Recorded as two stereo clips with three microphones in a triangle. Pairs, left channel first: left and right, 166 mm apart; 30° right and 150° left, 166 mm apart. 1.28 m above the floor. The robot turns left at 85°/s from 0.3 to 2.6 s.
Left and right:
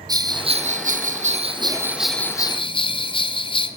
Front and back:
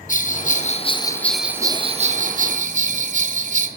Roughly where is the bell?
Ahead right.